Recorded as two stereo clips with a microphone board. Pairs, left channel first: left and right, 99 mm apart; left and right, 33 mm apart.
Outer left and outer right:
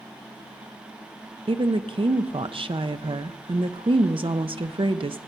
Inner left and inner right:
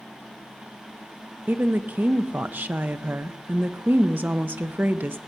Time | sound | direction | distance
1.5 | a woman speaking | 60° right (ahead or behind) | 0.6 m